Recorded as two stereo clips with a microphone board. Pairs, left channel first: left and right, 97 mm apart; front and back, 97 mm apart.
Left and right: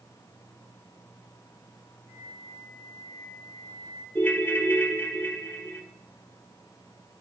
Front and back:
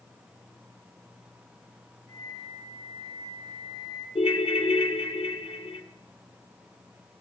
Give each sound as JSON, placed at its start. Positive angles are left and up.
{"t": 2.1, "sound": "a flute", "azimuth_deg": 10, "distance_m": 4.0}
{"t": 4.2, "sound": "a ringtone", "azimuth_deg": 20, "distance_m": 0.5}